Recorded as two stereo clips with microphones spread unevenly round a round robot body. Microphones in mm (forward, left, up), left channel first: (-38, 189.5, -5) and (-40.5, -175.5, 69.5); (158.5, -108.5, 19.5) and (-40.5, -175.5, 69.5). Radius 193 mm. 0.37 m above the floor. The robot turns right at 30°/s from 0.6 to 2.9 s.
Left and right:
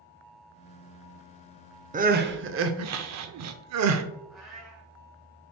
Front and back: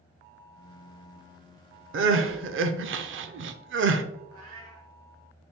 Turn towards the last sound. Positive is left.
turn(degrees=180)